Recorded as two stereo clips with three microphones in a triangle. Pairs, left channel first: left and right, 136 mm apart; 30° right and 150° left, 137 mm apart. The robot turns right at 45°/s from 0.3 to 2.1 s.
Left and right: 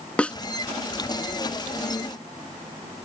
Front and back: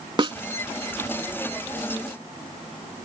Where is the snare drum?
165° left; by 0.4 s 170° left.